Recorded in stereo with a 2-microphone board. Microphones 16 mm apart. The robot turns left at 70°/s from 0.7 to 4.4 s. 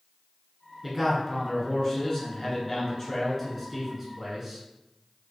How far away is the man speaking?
About 1.3 m.